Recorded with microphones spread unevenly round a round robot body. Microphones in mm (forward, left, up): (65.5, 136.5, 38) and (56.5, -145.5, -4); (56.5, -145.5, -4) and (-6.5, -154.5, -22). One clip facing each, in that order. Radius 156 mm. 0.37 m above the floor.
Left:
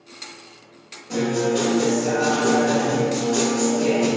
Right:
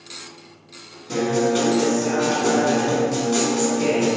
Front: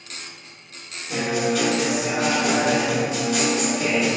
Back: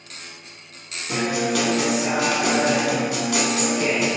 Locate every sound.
1.1 s a guitar: 150° right, 0.6 m